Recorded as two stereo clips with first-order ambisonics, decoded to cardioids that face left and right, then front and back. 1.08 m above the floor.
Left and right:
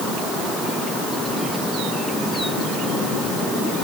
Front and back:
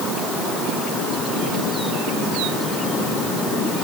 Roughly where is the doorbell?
No doorbell in this recording.